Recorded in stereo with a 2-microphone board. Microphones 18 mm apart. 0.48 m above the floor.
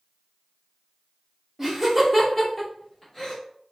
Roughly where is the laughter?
Right.